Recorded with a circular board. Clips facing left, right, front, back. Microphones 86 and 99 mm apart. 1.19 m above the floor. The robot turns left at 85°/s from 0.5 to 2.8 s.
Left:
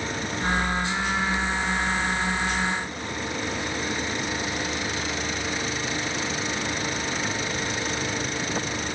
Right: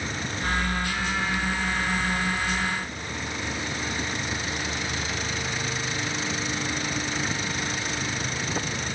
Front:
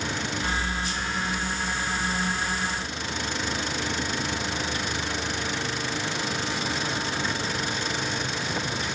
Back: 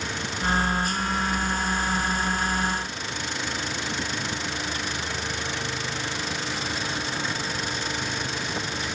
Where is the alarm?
I don't hear an alarm.